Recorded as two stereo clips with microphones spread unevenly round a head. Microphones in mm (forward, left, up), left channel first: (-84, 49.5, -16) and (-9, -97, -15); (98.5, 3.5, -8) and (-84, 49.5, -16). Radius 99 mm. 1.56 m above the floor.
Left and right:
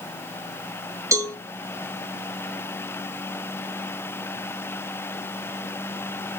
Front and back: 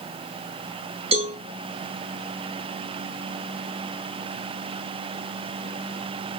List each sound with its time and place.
1.1 s a cowbell: 135° right, 3 m